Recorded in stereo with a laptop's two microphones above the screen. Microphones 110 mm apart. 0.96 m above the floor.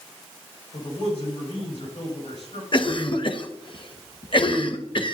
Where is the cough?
50° left (ahead or behind), 0.8 m.